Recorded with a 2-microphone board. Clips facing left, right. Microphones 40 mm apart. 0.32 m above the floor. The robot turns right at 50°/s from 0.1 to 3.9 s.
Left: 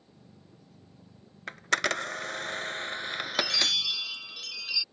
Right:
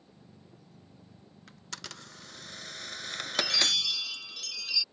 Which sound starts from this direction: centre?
A chime, at 3.3 s.